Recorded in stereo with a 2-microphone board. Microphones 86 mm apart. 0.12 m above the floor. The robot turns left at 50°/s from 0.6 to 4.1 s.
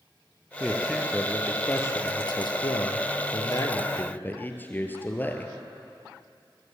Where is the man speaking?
160° right, 2.5 m; by 5.5 s 25° left, 2.5 m.